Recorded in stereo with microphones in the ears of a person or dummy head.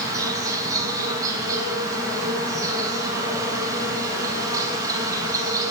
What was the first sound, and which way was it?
An insect, 20° right (ahead or behind).